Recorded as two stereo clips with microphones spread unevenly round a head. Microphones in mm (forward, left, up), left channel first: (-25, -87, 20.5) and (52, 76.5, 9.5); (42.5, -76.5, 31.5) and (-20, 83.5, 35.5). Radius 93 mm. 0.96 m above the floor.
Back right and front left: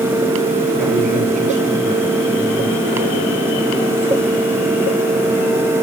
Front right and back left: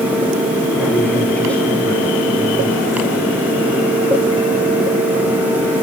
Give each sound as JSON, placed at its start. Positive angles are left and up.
{"t": 0.7, "sound": "a man speaking", "azimuth_deg": 20, "distance_m": 9.5}